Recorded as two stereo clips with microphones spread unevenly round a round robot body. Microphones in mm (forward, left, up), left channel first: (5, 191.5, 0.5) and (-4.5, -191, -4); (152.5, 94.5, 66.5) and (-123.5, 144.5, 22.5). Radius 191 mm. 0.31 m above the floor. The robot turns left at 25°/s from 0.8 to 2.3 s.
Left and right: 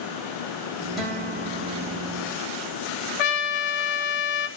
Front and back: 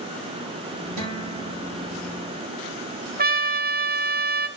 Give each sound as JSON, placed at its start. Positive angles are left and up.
{"t": 1.0, "sound": "a guitar", "azimuth_deg": 180, "distance_m": 5.0}
{"t": 3.2, "sound": "a trumpet", "azimuth_deg": 110, "distance_m": 1.0}